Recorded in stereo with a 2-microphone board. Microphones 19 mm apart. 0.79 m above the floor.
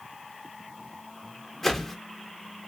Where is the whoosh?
15° left (ahead or behind), 0.8 m.